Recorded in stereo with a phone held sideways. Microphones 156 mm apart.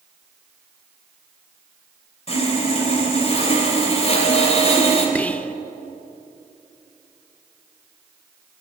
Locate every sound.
2.3 s sawing: 45° left (ahead or behind), 5.5 m
5.2 s whispering: 10° left (ahead or behind), 0.6 m